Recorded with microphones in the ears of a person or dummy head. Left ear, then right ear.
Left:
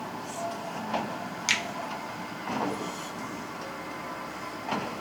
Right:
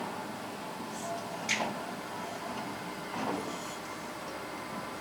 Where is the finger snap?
60° left (ahead or behind), 0.7 m.